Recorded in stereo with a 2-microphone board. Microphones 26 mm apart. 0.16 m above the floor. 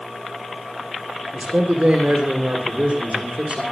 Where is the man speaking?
55° right (ahead or behind), 7.5 m.